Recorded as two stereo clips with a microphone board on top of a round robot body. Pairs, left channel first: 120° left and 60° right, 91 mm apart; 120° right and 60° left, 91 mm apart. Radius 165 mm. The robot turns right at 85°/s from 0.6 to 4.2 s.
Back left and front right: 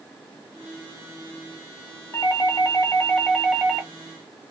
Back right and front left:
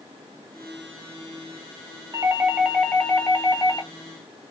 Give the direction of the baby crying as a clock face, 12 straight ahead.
I don't hear a baby crying.